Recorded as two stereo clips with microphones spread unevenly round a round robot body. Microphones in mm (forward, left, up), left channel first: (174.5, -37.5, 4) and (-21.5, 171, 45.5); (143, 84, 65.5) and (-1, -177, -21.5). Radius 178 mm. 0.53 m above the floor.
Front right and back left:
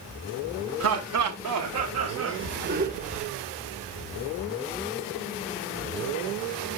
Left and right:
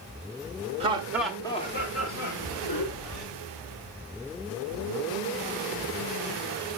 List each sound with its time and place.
0.8 s laughter: straight behind, 1.4 m; by 3.3 s 65° left, 1.7 m